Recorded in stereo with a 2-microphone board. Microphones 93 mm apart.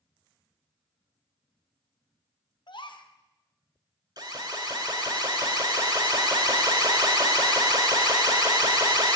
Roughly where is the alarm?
Right.